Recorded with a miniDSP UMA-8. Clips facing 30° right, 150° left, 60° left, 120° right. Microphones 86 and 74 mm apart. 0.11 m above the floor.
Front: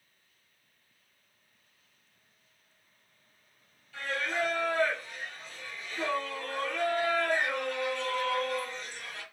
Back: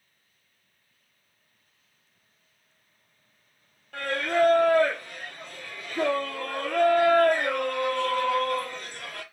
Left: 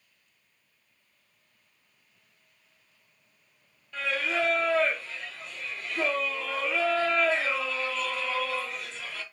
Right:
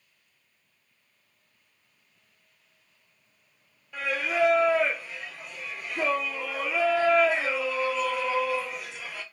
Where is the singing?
165° left, 0.6 m.